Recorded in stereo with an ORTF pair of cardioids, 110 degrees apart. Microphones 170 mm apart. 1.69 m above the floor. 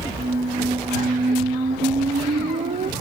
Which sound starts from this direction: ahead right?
A squeak, at 0.2 s.